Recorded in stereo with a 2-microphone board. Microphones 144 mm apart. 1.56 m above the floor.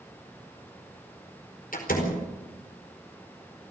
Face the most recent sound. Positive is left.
turn(degrees=80)